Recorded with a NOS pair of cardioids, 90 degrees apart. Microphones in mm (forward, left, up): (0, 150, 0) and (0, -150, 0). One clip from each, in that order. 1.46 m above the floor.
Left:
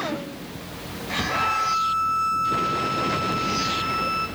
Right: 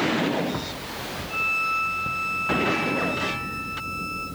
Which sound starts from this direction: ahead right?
A violin, at 1.3 s.